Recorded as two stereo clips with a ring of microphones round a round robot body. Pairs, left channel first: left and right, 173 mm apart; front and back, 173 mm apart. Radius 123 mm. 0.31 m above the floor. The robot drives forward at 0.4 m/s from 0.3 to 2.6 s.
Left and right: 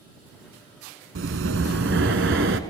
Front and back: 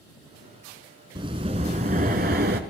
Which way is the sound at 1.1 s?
110° right.